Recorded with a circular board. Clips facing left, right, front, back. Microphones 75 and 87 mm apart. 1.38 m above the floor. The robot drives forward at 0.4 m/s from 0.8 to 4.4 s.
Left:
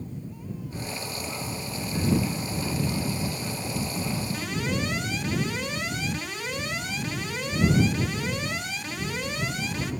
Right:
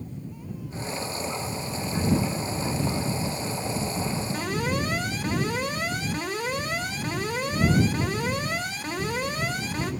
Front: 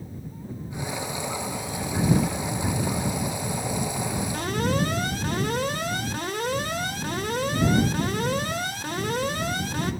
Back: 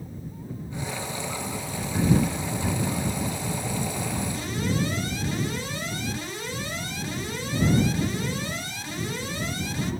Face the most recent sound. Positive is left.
turn(degrees=-40)